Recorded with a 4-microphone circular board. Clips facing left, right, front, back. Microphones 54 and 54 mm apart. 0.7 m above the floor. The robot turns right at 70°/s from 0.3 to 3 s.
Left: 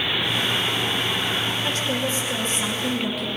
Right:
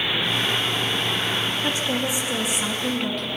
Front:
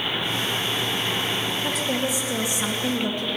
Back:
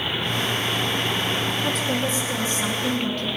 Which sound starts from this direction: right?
A woman speaking, at 1.6 s.